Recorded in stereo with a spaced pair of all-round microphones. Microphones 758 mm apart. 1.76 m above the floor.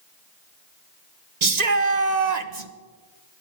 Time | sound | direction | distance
1.4 | a shout | 60° right (ahead or behind) | 1.4 m